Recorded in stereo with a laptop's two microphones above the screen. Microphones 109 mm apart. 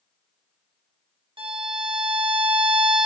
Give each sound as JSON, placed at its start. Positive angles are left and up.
{"t": 1.4, "sound": "a violin", "side_deg": -55, "distance_m": 0.8}